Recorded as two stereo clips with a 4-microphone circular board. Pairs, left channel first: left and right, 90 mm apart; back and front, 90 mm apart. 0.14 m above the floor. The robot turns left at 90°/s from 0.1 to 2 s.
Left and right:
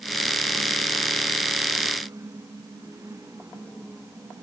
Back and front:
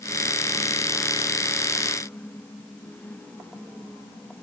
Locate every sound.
Only background noise.